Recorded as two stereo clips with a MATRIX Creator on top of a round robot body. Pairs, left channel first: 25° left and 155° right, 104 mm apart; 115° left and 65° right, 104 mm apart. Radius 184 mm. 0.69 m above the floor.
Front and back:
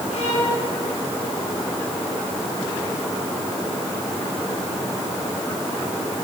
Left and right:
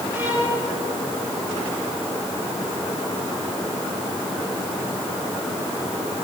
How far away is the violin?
About 5.5 m.